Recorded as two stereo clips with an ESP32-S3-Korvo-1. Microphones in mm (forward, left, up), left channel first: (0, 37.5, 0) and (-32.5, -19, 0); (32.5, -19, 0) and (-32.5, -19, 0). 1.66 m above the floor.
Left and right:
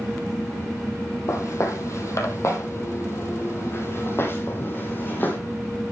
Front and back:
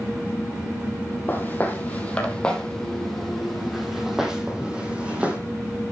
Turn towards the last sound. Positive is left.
turn(degrees=115)